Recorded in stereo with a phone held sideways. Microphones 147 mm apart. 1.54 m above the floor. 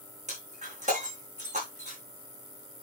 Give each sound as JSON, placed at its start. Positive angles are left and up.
{"t": 0.3, "sound": "breaking glass", "side_deg": -55, "distance_m": 8.0}